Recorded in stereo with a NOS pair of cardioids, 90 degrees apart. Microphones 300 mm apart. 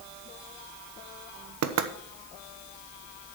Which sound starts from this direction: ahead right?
Knocking, at 1.6 s.